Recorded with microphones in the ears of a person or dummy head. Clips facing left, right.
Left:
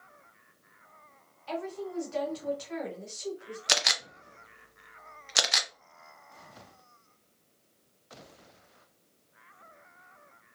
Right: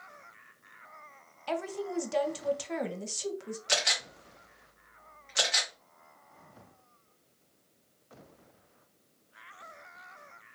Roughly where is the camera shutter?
Left.